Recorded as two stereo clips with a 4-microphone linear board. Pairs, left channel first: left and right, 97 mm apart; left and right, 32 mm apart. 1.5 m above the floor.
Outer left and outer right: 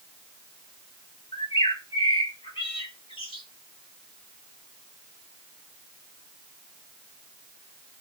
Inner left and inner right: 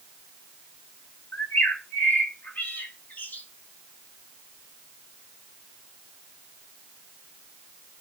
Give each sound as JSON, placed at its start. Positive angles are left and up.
{"t": 1.3, "sound": "a bird", "side_deg": 75, "distance_m": 3.0}